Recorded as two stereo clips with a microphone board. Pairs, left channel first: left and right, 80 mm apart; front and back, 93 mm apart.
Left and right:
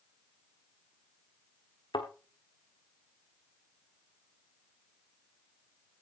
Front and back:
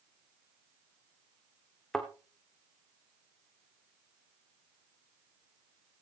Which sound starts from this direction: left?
A thud, at 1.9 s.